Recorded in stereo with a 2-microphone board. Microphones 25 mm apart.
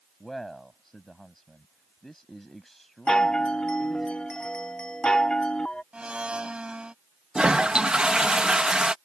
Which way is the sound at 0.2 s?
10° left (ahead or behind).